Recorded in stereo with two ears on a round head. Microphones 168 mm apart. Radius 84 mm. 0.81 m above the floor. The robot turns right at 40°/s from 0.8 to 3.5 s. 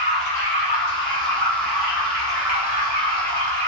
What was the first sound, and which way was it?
Running water, 140° left.